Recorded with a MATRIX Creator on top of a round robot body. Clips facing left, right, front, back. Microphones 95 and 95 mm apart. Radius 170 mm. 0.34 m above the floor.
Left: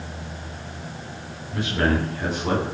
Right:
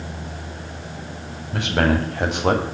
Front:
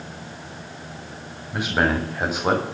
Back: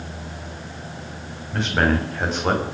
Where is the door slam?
I don't hear a door slam.